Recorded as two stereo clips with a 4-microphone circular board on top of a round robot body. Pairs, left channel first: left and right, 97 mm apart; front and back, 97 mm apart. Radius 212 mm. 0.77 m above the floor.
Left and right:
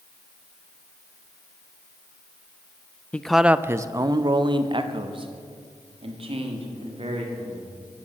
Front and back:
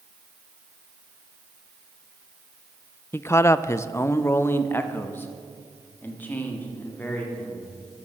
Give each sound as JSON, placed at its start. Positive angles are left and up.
{"t": 3.1, "sound": "a man speaking", "azimuth_deg": 30, "distance_m": 0.7}